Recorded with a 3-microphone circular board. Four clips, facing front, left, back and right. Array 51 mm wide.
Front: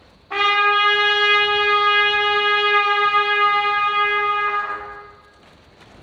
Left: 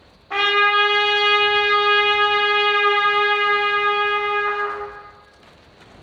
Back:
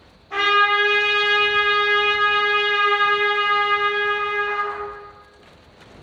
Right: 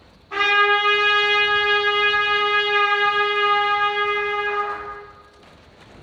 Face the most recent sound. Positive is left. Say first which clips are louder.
# even, even
turn(degrees=65)